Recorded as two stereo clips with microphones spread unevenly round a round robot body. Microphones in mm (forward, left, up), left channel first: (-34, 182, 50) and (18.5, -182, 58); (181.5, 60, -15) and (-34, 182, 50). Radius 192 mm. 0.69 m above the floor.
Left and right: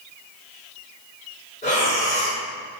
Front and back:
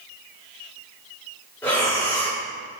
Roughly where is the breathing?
Ahead left.